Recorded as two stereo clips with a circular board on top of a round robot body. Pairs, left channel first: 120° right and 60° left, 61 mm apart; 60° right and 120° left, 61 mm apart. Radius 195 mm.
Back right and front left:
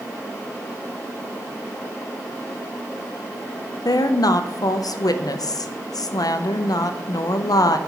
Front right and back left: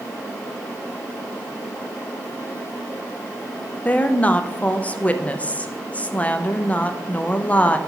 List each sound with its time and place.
3.9 s a woman speaking: 130° right, 0.7 m